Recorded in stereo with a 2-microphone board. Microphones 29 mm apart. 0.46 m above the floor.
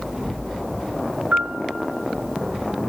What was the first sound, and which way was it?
A piano, 60° right (ahead or behind).